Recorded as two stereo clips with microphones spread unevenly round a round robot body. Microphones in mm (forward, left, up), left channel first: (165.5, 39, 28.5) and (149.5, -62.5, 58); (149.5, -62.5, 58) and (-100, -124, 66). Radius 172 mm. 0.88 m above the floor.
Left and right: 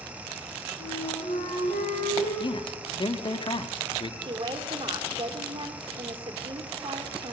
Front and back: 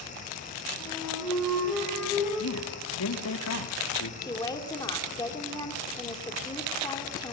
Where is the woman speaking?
60° right, 2.5 m.